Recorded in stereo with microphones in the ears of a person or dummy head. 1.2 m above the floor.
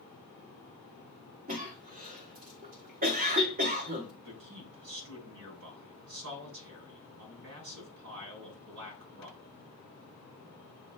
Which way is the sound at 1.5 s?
40° right (ahead or behind).